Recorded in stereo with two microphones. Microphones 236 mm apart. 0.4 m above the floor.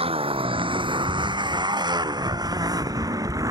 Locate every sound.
0.0 s a motorcycle: 25° right (ahead or behind); by 3.5 s 15° right (ahead or behind)